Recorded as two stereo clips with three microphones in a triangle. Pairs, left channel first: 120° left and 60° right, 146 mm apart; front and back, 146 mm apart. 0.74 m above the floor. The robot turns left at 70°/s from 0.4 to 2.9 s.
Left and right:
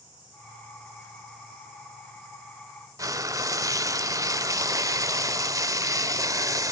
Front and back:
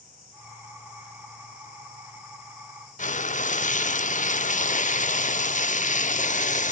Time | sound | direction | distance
3.0 | frying | straight ahead | 0.6 m